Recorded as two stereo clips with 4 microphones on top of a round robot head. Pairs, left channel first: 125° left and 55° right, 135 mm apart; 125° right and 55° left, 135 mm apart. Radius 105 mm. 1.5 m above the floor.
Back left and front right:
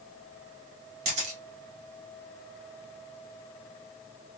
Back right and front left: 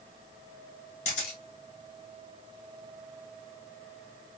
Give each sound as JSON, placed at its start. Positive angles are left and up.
{"t": 1.1, "sound": "a camera shutter", "azimuth_deg": -85, "distance_m": 0.8}